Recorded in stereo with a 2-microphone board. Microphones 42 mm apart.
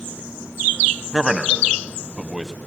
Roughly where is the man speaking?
Centre.